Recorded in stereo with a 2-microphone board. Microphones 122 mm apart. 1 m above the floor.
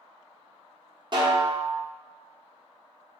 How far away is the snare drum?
About 0.6 m.